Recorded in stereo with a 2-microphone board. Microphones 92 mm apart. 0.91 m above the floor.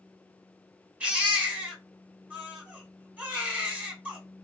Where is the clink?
I don't hear a clink.